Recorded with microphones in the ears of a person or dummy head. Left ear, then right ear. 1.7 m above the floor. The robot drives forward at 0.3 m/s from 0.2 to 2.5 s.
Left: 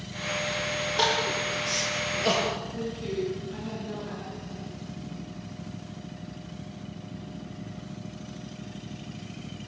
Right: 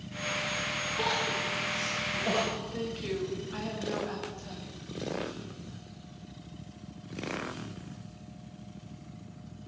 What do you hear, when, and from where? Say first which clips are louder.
1.0 s crying: left 5 dB; 75° left (ahead or behind), 9 m
2.7 s a woman speaking: left 2 dB; 45° right (ahead or behind), 7.5 m